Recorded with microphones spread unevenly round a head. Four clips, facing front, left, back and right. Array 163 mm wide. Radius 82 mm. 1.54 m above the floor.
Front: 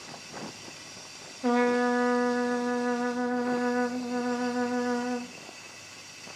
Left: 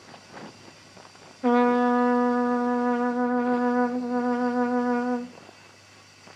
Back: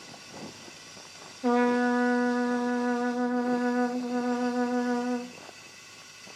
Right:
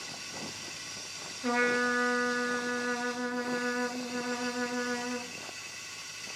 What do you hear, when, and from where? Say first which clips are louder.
0.0 s running water: left 1 dB, front 2 dB; 70° right, 5.5 m
1.4 s a trumpet: left 9 dB, even; 115° left, 1.3 m